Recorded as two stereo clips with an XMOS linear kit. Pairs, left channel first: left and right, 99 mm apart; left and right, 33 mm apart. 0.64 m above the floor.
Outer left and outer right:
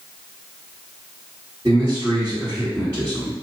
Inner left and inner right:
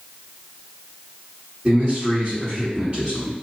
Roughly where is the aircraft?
No aircraft in this recording.